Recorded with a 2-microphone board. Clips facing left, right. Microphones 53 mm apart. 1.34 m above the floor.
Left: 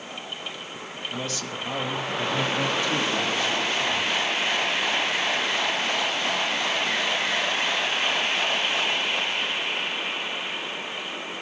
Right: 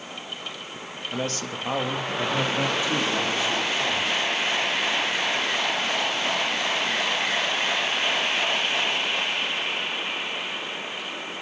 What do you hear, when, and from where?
1.1 s a man speaking: 50° right (ahead or behind), 1.9 m; by 4.2 s 5° right (ahead or behind), 5 m